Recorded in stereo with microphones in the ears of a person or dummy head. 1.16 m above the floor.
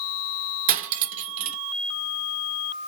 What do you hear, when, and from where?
0.7 s cutlery clinking: 40° right (ahead or behind), 0.5 m